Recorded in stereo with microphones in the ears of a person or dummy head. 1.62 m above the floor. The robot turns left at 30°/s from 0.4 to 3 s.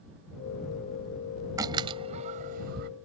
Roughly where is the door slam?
Centre.